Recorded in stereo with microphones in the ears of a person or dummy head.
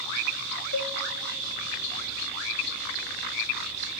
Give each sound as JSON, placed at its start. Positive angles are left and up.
{"t": 0.7, "sound": "a cowbell", "side_deg": 75, "distance_m": 0.5}